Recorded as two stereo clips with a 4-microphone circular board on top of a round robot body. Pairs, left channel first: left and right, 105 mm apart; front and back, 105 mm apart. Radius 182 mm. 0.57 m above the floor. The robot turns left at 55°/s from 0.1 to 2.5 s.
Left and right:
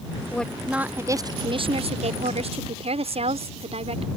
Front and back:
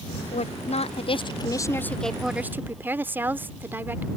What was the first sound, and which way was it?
A woman speaking, 10° left.